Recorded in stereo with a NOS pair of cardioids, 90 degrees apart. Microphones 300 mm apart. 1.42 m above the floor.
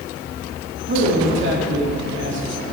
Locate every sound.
0.9 s a man speaking: 40° right, 3 m